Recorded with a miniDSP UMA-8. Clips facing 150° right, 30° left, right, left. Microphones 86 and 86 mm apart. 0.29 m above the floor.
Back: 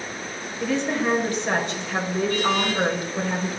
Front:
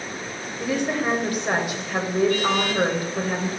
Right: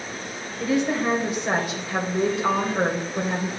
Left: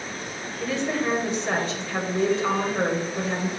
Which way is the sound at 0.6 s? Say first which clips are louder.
Even, right 3 dB; 30° right.